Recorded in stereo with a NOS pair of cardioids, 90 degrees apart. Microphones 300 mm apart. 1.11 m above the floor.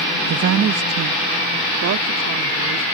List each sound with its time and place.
0.3 s a woman speaking: 50° right; by 2.8 s 60° right